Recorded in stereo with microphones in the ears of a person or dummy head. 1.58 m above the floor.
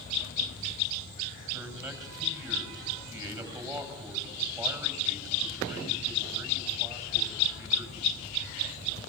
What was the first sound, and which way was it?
A man speaking, 20° right (ahead or behind).